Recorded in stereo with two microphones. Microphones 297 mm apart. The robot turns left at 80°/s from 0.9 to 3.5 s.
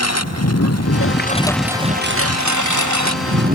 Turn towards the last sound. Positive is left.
turn(degrees=-150)